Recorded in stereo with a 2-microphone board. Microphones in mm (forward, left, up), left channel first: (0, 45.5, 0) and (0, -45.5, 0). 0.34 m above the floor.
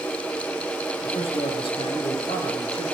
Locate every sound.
1.0 s a man speaking: 80° left, 6 m; by 2.9 s 70° left (ahead or behind), 5.5 m